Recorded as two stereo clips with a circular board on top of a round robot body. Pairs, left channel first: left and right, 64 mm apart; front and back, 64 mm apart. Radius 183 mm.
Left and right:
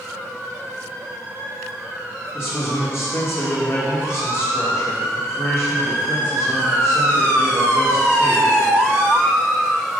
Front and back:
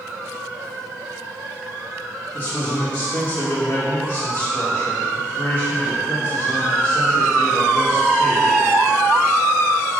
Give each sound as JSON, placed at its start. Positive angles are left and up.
{"t": 2.3, "sound": "a man speaking", "azimuth_deg": 55, "distance_m": 1.9}